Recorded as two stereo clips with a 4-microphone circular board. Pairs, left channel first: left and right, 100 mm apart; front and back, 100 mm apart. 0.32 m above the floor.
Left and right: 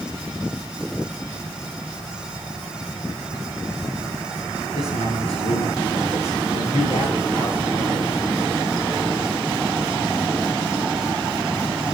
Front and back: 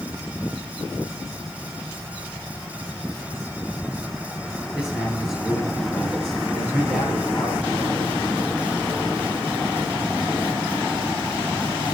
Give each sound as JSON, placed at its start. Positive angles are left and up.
{"t": 4.8, "sound": "a man speaking", "azimuth_deg": 95, "distance_m": 6.0}